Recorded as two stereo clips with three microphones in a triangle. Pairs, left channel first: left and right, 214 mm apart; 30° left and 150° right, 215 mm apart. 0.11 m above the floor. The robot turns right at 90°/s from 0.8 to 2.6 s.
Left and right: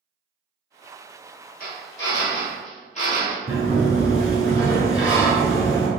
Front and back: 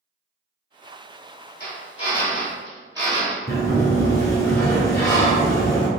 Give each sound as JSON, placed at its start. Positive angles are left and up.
{"t": 1.6, "sound": "a drill", "azimuth_deg": 50, "distance_m": 1.5}
{"t": 3.5, "sound": "a sliding door", "azimuth_deg": -10, "distance_m": 1.6}